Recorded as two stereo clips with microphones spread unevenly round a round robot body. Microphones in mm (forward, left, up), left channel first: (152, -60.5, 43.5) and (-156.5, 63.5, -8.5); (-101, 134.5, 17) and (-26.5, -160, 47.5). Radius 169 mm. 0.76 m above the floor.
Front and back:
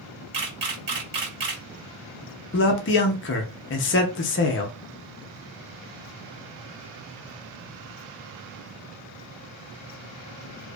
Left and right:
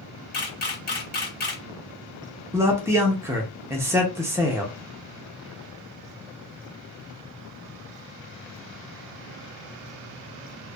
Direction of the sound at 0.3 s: 160° left.